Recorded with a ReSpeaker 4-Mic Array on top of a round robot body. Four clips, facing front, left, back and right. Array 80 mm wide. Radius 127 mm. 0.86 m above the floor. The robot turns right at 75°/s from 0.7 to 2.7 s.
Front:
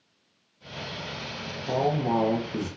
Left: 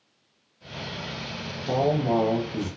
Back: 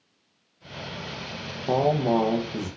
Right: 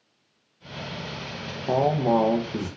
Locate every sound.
1.6 s a man speaking: 145° right, 0.7 m; by 2.7 s 65° right, 0.7 m